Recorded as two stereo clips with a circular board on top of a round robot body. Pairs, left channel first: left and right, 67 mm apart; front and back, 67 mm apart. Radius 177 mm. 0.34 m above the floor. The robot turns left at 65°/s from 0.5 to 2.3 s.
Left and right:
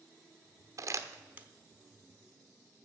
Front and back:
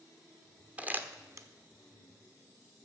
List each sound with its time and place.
0.8 s crumpling: 115° right, 1.1 m; by 1.5 s 160° right, 1.1 m